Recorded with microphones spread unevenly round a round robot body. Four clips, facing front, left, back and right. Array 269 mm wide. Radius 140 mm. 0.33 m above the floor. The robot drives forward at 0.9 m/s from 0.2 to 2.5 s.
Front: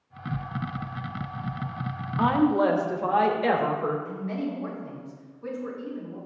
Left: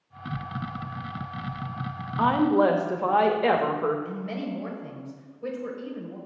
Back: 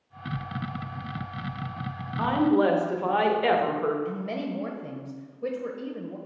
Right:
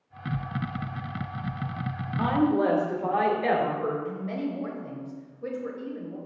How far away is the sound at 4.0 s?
About 1.4 m.